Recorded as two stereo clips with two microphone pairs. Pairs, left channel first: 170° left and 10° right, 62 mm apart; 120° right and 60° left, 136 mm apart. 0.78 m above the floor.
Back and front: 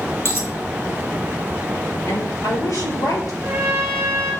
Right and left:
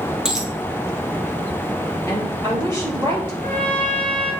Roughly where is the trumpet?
Ahead left.